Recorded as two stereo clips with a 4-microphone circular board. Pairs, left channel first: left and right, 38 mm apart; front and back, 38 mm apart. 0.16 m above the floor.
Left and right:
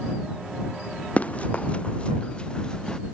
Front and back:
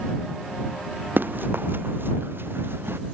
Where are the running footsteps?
145° left; by 3.0 s 165° left.